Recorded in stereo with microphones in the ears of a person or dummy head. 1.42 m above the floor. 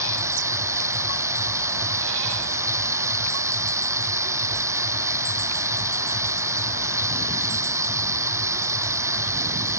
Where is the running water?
20° right (ahead or behind).